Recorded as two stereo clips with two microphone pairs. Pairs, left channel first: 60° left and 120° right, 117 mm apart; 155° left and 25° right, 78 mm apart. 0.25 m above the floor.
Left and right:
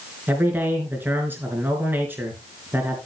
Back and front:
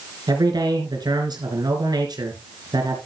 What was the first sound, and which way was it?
A man speaking, 50° right.